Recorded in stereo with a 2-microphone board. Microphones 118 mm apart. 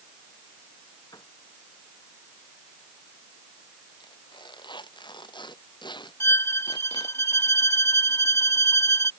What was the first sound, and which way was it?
A piano, 35° left (ahead or behind).